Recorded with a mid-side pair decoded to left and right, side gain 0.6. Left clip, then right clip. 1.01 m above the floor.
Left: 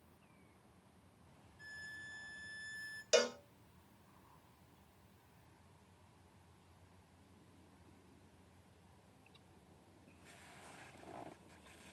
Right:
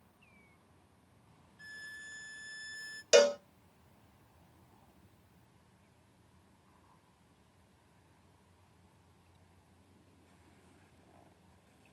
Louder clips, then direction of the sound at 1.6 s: Right 3 dB; 35° right.